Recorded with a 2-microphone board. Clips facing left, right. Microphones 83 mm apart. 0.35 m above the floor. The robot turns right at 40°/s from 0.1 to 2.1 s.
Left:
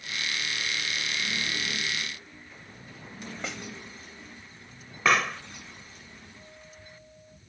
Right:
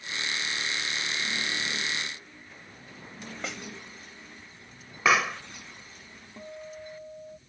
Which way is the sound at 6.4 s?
40° right (ahead or behind).